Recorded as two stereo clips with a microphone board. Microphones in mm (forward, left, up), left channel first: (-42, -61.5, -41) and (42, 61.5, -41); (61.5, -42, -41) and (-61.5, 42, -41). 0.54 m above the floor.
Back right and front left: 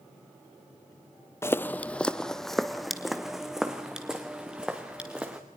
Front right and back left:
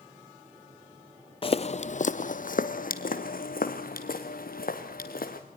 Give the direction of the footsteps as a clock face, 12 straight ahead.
2 o'clock.